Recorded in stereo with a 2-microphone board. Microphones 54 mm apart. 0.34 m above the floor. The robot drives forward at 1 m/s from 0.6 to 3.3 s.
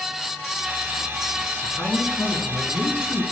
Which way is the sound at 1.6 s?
65° left (ahead or behind).